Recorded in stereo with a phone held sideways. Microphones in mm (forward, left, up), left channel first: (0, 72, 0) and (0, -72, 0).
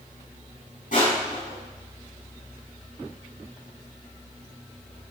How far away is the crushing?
About 7 m.